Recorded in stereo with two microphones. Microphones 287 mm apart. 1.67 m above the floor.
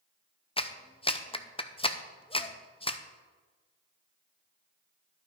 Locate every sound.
0.6 s a clap: 20° left (ahead or behind), 0.5 m